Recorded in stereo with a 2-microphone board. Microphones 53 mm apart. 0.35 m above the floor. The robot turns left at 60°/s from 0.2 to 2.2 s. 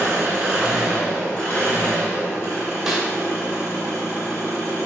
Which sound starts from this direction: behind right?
An engine running, at 0.0 s.